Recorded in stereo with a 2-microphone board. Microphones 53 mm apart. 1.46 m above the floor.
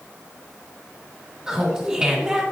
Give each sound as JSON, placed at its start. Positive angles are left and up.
{"t": 1.5, "sound": "laughter", "side_deg": -15, "distance_m": 2.0}